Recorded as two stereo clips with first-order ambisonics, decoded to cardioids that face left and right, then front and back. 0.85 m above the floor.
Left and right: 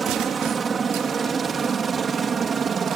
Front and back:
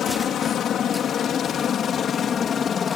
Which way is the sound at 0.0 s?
30° right.